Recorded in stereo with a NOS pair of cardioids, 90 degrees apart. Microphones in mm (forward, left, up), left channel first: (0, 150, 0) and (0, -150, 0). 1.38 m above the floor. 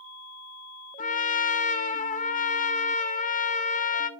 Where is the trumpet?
25° left, 0.6 m.